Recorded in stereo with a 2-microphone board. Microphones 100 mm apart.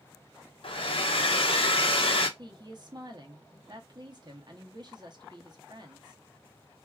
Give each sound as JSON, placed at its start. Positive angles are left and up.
{"t": 0.6, "sound": "a hair dryer", "side_deg": 60, "distance_m": 0.7}
{"t": 2.4, "sound": "a woman speaking", "side_deg": -45, "distance_m": 0.9}